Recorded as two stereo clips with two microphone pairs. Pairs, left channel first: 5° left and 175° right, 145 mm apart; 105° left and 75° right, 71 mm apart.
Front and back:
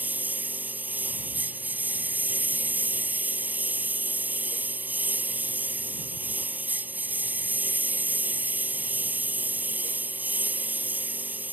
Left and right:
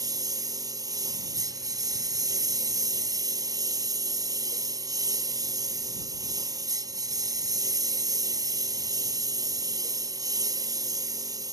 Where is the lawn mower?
95° right.